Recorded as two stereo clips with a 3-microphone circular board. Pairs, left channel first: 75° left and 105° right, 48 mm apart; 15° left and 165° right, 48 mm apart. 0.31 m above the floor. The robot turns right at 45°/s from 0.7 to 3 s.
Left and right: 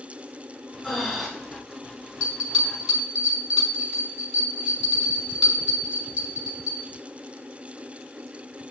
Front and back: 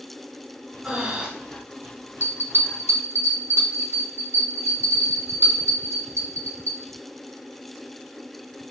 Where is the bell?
135° left, 2 m; by 6.8 s 175° left, 2 m.